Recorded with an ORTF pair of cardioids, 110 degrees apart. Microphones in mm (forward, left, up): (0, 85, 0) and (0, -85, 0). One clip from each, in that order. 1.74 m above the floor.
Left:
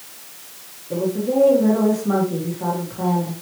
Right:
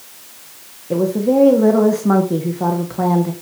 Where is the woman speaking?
55° right, 1.7 m.